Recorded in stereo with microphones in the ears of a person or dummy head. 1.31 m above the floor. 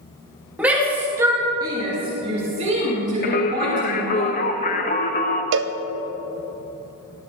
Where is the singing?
40° left (ahead or behind), 0.8 m.